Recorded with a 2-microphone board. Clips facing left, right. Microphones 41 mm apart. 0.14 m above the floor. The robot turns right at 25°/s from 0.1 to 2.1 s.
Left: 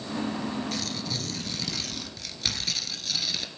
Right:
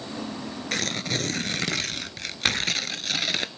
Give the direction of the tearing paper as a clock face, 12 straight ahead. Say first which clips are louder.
Right 5 dB; 3 o'clock.